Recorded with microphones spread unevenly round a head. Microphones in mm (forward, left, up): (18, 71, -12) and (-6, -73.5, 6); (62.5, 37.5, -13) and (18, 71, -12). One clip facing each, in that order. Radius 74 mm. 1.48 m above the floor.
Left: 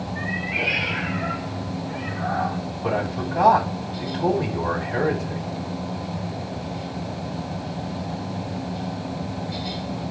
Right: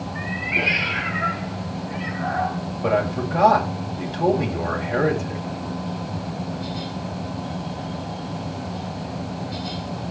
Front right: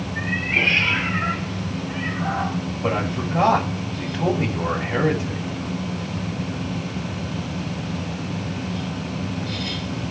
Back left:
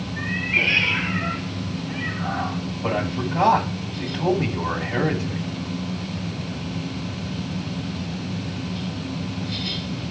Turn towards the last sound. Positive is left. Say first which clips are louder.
# right 4 dB, even
turn(degrees=-105)